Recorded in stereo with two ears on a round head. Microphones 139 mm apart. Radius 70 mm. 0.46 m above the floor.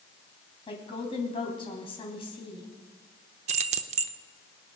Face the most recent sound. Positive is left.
turn(degrees=-45)  # may be behind; listen again after turning